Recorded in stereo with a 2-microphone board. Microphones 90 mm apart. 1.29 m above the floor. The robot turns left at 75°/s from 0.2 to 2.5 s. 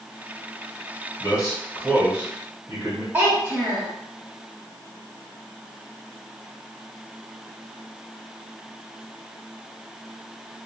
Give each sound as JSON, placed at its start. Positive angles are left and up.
{"t": 1.2, "sound": "a man speaking", "azimuth_deg": 55, "distance_m": 1.5}
{"t": 3.1, "sound": "a child speaking", "side_deg": -20, "distance_m": 1.2}